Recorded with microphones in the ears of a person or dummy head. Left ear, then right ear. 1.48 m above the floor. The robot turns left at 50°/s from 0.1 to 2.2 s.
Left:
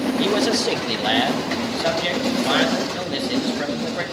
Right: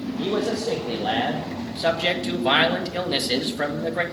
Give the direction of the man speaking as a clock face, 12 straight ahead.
9 o'clock.